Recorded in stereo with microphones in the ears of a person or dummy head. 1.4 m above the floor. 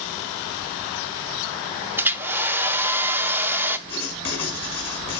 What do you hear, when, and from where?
2.0 s a hair dryer: 15° right (ahead or behind), 0.9 m
3.9 s writing: 30° left (ahead or behind), 6 m